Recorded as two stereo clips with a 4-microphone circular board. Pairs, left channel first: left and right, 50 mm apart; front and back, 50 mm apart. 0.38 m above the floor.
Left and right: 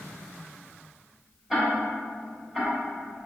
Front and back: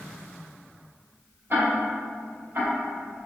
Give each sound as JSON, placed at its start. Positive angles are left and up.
{"t": 1.5, "sound": "ticking", "azimuth_deg": -175, "distance_m": 1.1}